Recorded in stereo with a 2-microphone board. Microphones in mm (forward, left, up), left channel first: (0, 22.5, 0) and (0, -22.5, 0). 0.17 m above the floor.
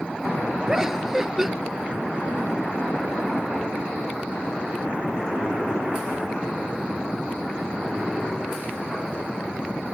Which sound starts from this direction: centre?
Laughter, at 0.7 s.